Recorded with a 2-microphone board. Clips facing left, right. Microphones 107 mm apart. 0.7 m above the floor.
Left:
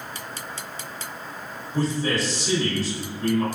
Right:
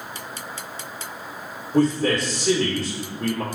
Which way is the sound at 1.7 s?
65° right (ahead or behind).